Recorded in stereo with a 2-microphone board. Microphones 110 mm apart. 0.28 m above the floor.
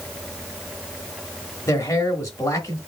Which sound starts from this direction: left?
A man speaking, at 1.7 s.